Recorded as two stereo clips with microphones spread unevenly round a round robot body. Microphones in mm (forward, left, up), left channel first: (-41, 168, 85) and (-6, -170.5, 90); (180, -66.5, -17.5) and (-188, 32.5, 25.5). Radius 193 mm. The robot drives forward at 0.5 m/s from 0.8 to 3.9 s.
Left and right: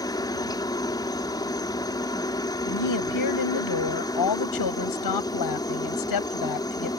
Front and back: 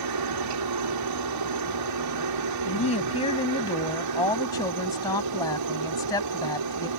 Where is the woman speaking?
60° left; by 6.9 s 65° left.